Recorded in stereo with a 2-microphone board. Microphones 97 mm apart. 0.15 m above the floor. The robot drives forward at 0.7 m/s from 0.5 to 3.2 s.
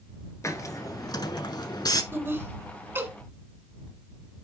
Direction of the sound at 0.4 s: 30° left (ahead or behind).